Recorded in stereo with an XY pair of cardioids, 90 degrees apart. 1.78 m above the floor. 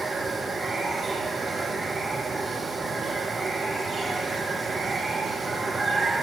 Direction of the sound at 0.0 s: 35° right.